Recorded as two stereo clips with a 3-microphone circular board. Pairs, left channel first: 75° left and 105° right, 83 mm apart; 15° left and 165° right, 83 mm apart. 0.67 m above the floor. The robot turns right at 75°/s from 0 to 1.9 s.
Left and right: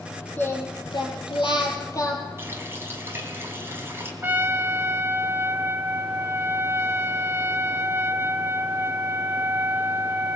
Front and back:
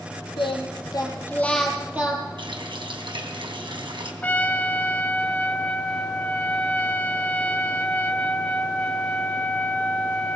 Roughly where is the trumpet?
Ahead right.